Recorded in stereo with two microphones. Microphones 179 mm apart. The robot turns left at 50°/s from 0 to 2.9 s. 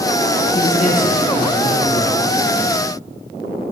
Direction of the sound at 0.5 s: 130° left.